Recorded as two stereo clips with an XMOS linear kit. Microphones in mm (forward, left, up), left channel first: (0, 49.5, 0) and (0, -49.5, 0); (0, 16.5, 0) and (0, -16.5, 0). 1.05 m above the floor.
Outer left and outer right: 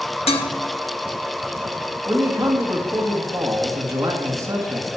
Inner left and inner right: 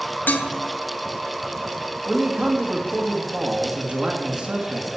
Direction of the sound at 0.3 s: 75° left (ahead or behind).